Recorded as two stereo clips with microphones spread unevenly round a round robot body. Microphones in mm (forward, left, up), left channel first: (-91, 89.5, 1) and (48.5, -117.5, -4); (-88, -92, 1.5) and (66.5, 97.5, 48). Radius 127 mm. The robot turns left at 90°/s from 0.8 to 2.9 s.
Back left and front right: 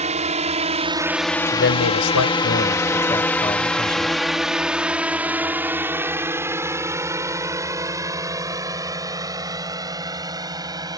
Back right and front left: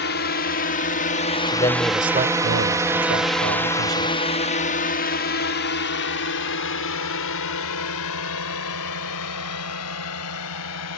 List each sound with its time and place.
0.0 s a drone: 110° right; by 11.0 s 130° right
1.5 s a man speaking: straight behind; by 4.1 s 50° left